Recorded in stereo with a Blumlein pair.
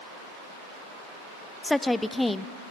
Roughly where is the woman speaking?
Ahead.